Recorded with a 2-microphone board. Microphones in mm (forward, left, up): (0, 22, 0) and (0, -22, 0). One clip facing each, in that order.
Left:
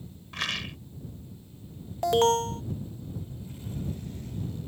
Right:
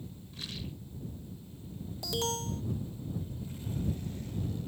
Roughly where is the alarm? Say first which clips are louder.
Left 13 dB; left.